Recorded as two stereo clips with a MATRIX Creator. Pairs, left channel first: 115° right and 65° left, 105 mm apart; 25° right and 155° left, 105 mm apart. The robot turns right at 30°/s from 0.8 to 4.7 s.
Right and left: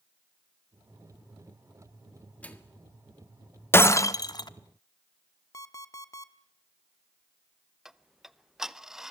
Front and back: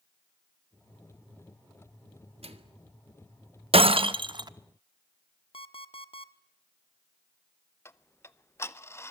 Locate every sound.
2.4 s a microwave: 170° left, 1.7 m; by 2.8 s straight behind, 1.7 m
3.7 s breaking glass: straight behind, 0.8 m; by 4.5 s 155° right, 0.8 m
5.5 s an alarm clock: 55° right, 1.1 m
7.8 s ticking: 10° right, 0.7 m